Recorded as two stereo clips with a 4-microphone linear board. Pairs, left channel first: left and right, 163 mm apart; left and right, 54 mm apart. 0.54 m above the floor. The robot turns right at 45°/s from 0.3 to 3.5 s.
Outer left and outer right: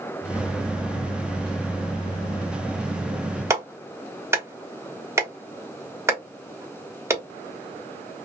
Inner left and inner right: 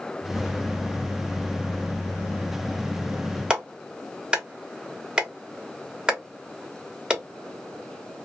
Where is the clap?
15° right (ahead or behind), 1.1 m.